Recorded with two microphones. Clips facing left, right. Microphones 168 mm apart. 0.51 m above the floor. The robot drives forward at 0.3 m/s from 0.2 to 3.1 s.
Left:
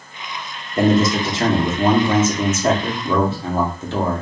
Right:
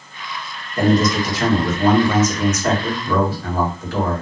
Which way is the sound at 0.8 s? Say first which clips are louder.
Left 1 dB; 25° left (ahead or behind).